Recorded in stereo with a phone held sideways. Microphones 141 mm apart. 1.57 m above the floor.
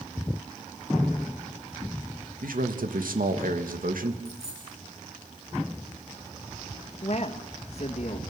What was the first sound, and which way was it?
A man speaking, 90° right.